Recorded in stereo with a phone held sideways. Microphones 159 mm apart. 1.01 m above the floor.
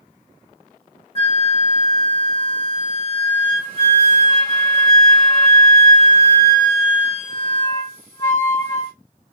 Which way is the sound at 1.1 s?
35° left (ahead or behind).